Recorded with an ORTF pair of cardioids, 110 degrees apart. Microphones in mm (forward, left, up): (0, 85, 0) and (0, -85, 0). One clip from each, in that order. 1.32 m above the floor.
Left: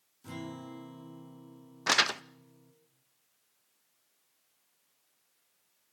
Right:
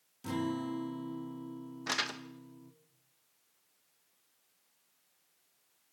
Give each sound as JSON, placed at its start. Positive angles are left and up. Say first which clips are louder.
{"t": 0.2, "sound": "a guitar", "louder": "right 7 dB", "azimuth_deg": -45, "distance_m": 3.0}
{"t": 1.9, "sound": "crumpling", "louder": "left 8 dB", "azimuth_deg": 45, "distance_m": 0.8}